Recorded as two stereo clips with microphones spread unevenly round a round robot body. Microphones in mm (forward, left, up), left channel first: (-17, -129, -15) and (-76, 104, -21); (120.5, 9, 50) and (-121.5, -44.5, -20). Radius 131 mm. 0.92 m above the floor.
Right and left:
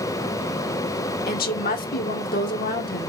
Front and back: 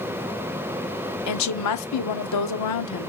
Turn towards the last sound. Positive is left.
turn(degrees=-15)